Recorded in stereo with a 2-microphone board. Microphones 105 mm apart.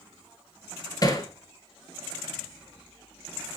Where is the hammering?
35° left (ahead or behind), 2.0 m.